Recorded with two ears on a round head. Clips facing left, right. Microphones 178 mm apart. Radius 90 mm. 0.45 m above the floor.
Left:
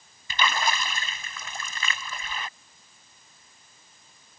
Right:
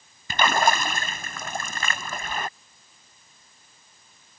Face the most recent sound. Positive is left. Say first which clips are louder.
# right 6 dB
turn(degrees=-45)  # may be behind; listen again after turning